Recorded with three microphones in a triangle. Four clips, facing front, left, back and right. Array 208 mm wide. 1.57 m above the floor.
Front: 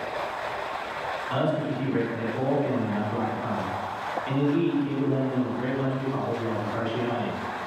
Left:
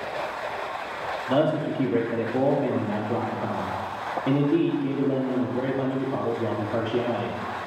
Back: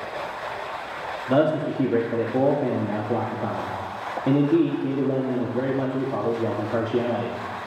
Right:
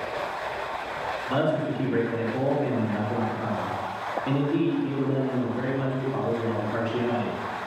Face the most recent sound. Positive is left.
turn(degrees=160)